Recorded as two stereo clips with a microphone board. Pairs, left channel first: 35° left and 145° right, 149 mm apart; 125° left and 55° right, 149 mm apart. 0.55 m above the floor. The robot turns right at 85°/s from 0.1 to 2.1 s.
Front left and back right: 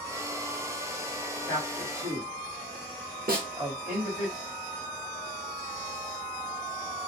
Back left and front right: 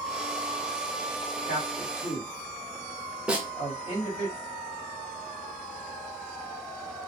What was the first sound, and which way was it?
A man speaking, 95° left.